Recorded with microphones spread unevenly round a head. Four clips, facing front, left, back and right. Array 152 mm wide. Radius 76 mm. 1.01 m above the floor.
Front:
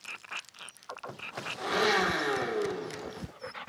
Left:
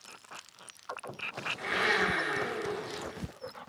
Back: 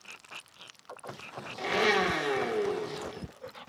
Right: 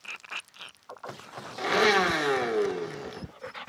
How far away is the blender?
About 1.2 m.